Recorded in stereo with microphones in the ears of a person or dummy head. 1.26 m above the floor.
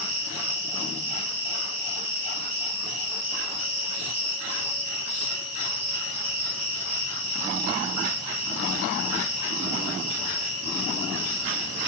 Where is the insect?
35° right (ahead or behind), 1.6 m.